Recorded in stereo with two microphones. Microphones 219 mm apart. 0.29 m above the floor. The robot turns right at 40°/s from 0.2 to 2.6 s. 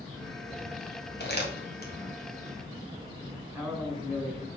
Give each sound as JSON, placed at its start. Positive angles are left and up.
{"t": 1.2, "sound": "crumpling", "side_deg": 50, "distance_m": 2.0}
{"t": 3.4, "sound": "a man speaking", "side_deg": 0, "distance_m": 3.0}